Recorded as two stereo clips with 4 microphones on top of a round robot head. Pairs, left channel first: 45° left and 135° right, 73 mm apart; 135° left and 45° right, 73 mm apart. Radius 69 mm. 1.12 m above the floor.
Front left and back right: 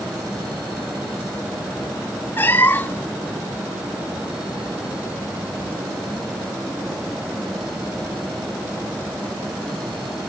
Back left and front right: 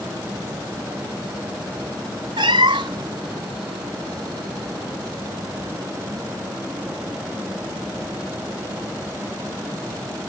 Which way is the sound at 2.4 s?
20° right.